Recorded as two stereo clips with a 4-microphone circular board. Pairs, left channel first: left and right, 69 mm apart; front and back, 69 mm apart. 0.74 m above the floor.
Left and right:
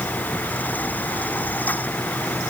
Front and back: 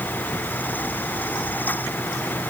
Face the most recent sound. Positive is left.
No sound to turn to.